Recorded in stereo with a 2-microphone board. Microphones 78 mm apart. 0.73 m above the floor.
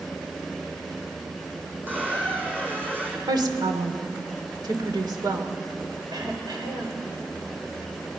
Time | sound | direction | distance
1.9 | a squeak | 25° right (ahead or behind) | 4 m
3.3 | a woman speaking | 75° right (ahead or behind) | 2.5 m
6.1 | throat clearing | 75° right (ahead or behind) | 3 m